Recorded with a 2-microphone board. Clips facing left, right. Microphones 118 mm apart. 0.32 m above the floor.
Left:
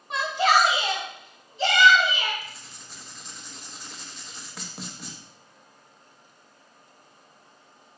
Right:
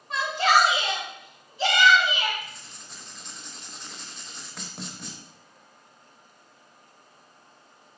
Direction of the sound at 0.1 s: 20° left (ahead or behind).